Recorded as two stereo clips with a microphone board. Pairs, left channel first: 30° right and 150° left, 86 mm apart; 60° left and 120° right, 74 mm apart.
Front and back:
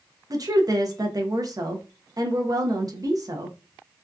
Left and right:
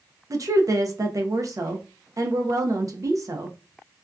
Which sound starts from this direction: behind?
A woman speaking, at 0.3 s.